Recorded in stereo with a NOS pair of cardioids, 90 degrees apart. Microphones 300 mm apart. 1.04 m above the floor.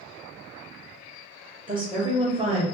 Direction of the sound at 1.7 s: 15° right.